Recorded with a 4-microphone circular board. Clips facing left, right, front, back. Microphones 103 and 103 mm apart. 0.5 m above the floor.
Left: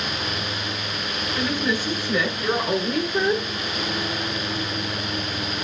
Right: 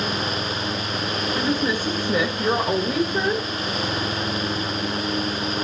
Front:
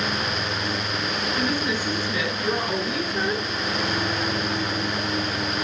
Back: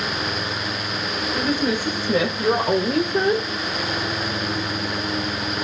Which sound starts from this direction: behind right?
A woman speaking, at 1.3 s.